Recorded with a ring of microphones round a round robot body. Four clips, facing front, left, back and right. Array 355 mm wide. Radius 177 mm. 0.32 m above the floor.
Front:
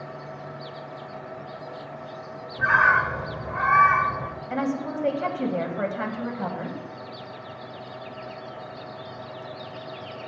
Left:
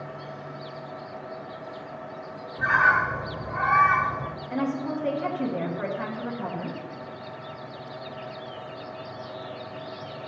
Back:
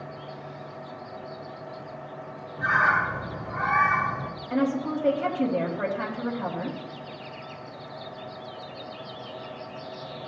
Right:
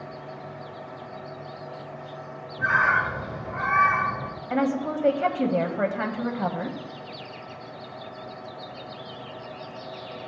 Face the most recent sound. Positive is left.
turn(degrees=-70)